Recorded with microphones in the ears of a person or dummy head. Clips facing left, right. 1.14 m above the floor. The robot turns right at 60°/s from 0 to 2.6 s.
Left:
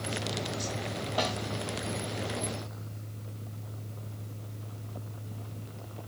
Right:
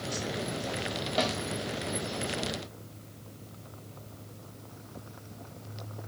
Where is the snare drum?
35° right (ahead or behind), 4 m; by 1.3 s 25° right (ahead or behind), 4 m.